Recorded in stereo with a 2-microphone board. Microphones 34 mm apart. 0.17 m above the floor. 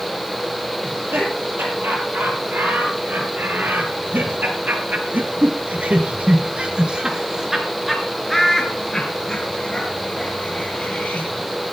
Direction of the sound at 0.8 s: 75° right (ahead or behind).